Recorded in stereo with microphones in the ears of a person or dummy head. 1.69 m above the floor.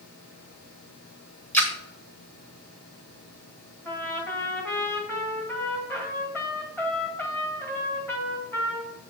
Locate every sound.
1.5 s a splash: 10° left (ahead or behind), 1.0 m
3.9 s a trumpet: 10° left (ahead or behind), 1.5 m